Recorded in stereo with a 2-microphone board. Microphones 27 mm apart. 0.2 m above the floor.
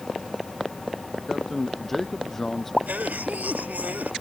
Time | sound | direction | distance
1.3 | a man speaking | 5° left (ahead or behind) | ?
2.9 | a cough | 75° right (ahead or behind) | ?